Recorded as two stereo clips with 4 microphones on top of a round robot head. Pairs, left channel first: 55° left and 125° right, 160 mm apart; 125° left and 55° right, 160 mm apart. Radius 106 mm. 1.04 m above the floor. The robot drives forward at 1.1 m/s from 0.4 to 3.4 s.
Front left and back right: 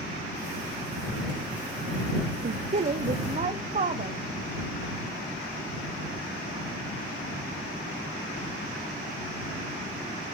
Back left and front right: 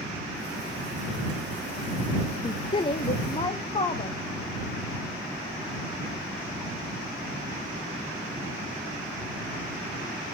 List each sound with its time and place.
2.4 s a woman speaking: 170° right, 0.5 m; by 4.2 s 175° right, 1.5 m